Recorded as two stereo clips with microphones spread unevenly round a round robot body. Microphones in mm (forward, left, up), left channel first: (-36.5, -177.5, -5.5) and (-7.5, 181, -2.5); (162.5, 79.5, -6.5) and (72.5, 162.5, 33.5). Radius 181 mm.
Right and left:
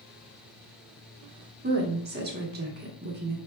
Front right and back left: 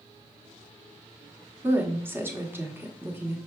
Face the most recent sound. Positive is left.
turn(degrees=50)